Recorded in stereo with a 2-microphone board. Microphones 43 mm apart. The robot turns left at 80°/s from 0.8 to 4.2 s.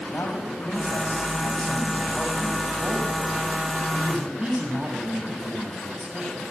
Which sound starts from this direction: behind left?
A man speaking, at 0.1 s.